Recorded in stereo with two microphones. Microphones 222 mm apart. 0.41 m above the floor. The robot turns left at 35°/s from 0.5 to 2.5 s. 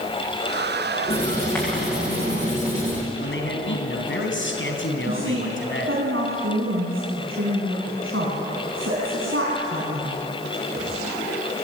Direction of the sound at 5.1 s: 70° right (ahead or behind).